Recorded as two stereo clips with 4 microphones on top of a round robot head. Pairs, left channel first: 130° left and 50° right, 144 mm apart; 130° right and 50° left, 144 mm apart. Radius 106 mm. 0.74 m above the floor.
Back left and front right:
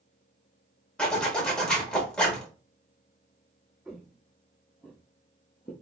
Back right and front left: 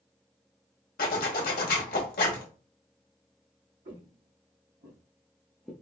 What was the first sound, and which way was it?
A zipper, 150° right.